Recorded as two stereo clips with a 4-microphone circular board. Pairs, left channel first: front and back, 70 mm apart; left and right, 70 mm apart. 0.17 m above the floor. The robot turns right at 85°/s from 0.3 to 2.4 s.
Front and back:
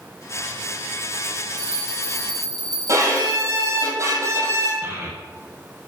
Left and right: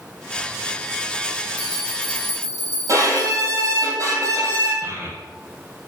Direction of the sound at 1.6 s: 160° right.